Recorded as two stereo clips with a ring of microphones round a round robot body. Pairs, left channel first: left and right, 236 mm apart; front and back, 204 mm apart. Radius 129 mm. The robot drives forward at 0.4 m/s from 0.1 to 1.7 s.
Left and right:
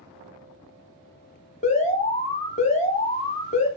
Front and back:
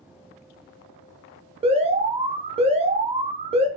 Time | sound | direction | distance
1.6 | an alarm | 130° left | 0.6 m